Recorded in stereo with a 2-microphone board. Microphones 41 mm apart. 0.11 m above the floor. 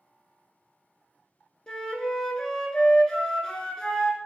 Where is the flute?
20° left (ahead or behind), 0.8 m.